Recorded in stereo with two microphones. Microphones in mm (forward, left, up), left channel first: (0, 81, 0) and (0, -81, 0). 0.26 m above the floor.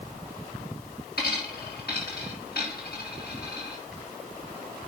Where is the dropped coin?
80° left, 5.5 m.